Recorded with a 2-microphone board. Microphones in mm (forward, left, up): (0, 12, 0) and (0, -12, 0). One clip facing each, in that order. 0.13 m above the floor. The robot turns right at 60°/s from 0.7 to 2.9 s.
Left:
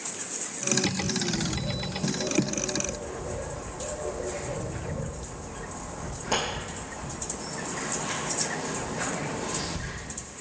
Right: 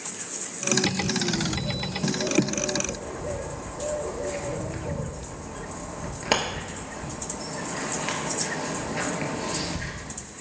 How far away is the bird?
About 0.8 m.